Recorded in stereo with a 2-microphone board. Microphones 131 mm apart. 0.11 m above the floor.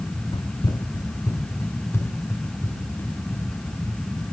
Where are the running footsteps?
40° left (ahead or behind), 0.5 m; by 4.2 s 15° left (ahead or behind), 3.5 m.